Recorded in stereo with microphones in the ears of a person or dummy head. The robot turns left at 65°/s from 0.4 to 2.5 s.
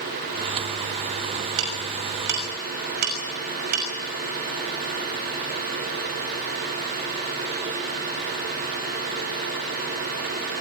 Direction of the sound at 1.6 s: 75° right (ahead or behind).